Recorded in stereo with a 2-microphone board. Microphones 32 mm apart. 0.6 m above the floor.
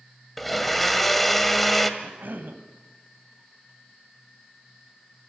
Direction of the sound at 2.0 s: 80° right.